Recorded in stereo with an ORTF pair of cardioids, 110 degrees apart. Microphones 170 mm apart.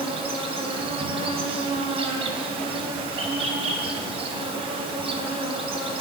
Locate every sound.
0.0 s an insect: 35° right, 3 m